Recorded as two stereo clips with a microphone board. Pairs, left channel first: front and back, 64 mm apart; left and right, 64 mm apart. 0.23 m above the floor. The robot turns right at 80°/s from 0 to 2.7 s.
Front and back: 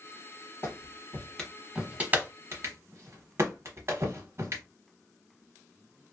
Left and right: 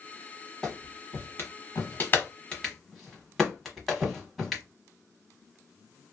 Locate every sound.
0.6 s a clap: 15° left, 1.1 m; by 4.6 s straight behind, 1.1 m